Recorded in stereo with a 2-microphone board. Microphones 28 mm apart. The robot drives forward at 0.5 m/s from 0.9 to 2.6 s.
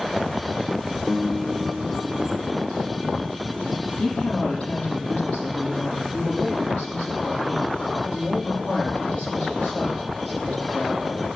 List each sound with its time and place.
1.1 s a guitar: 10° left (ahead or behind), 1.4 m; by 2.6 s 5° left (ahead or behind), 2 m
3.9 s a woman speaking: 40° left (ahead or behind), 7 m